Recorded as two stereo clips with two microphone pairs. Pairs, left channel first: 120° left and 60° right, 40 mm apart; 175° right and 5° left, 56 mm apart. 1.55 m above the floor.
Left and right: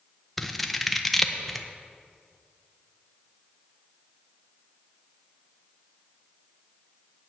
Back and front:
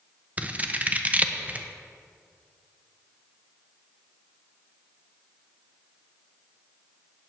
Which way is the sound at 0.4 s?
30° left.